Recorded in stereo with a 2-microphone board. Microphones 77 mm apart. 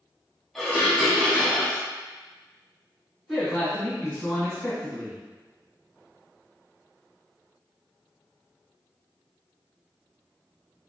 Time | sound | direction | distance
0.6 | dishes clattering | 5° left (ahead or behind) | 0.7 m
3.3 | a man speaking | centre (ahead or behind) | 1.4 m